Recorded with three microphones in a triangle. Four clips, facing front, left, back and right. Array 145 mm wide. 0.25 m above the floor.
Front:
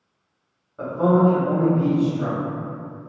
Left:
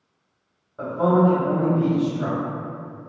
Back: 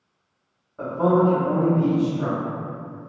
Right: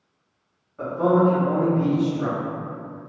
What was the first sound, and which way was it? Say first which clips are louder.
A man speaking: even, front 1 dB; 85° left.